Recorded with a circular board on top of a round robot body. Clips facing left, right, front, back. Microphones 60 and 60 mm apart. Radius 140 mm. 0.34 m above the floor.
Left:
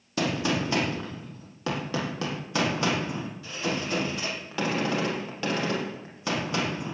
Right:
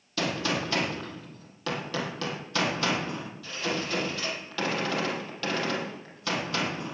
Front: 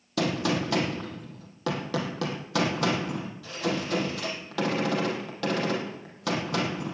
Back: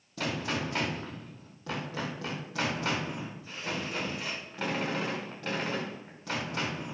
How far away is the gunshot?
About 4 m.